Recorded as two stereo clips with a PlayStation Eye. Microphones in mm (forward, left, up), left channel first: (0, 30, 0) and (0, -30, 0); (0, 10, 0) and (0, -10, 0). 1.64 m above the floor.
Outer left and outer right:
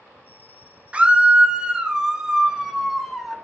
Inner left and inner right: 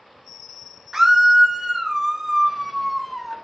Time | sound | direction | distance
0.9 | a scream | 20° right (ahead or behind) | 1.4 m